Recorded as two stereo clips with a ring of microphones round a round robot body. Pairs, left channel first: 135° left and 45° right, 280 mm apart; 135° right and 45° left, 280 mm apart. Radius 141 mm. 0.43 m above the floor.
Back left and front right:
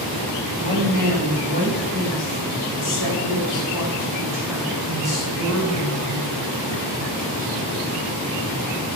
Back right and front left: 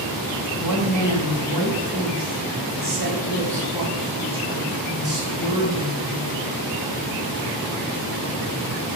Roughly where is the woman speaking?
Left.